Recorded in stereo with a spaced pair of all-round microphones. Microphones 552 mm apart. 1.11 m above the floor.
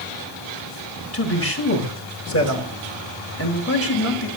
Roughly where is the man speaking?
Left.